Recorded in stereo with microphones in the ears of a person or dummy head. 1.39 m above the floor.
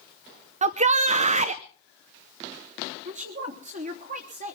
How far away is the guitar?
No guitar in this recording.